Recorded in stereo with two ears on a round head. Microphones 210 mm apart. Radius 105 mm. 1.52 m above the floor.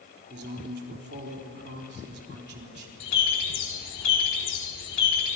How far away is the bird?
About 4 m.